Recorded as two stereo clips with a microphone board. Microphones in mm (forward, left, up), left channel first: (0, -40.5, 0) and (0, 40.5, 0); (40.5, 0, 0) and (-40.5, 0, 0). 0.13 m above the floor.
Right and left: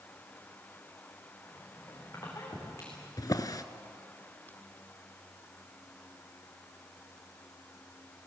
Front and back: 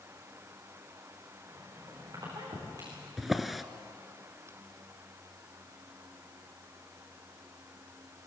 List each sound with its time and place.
1.4 s a squeak: 145° right, 7.5 m
3.2 s a drawer: 95° right, 0.8 m